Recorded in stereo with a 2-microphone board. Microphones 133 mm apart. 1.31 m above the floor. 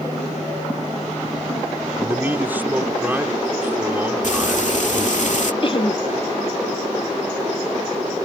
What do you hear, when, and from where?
2.0 s a man speaking: 15° right (ahead or behind)
4.2 s frying: 65° left (ahead or behind)
5.6 s laughter: 40° left (ahead or behind)